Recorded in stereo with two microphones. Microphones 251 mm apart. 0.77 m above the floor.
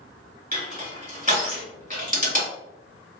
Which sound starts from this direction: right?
Crushing, at 0.5 s.